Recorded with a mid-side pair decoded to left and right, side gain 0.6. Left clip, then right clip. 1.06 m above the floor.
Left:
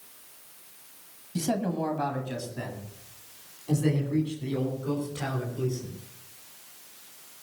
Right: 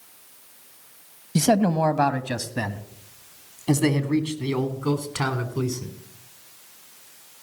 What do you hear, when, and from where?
1.4 s a man speaking: 55° right, 1.2 m; by 5.9 s 80° right, 4 m